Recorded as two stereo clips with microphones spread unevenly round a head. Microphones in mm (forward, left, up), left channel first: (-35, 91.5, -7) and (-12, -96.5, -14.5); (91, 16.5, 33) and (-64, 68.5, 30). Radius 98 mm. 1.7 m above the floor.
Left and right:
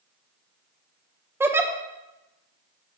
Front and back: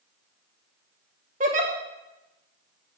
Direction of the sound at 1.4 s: 160° right.